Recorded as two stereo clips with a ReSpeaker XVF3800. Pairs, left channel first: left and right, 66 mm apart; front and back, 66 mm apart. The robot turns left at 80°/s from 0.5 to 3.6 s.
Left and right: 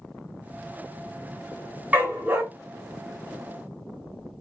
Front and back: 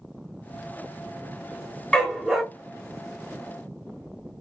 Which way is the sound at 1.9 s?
55° right.